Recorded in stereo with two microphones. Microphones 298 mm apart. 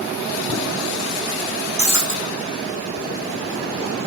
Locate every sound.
1.8 s breaking glass: 70° right (ahead or behind), 4.5 m